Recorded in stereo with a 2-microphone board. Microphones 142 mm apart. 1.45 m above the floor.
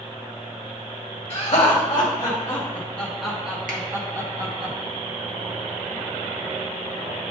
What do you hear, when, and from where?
1.3 s laughter: 40° left (ahead or behind), 1.6 m; by 4.7 s 35° right (ahead or behind), 1.4 m
3.7 s a finger snap: 75° right (ahead or behind), 1.4 m